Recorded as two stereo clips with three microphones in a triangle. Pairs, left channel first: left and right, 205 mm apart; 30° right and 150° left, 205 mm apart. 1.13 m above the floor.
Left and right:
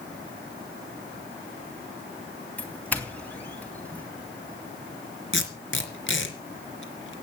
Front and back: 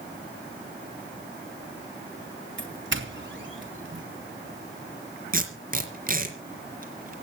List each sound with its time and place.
2.6 s a doorbell: 170° left, 3 m
5.3 s tape being pulled: 105° left, 3.5 m